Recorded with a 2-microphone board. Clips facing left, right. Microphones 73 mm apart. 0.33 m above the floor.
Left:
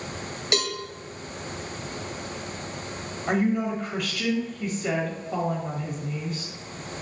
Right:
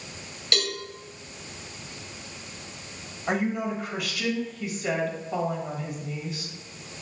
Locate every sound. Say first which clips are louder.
0.5 s a cowbell: left 2 dB; 20° left (ahead or behind), 0.9 m
3.3 s a woman speaking: left 3 dB; 5° right (ahead or behind), 1.5 m